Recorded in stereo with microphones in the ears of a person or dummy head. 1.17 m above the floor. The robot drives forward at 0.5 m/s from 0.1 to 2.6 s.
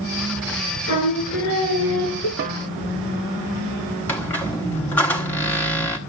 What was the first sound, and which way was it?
Singing, 80° left.